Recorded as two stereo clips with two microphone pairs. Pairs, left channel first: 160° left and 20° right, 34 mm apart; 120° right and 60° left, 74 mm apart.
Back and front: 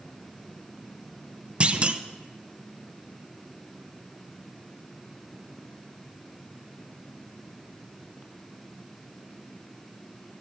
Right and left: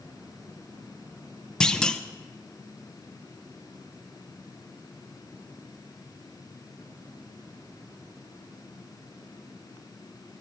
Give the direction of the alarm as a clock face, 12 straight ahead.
I don't hear an alarm.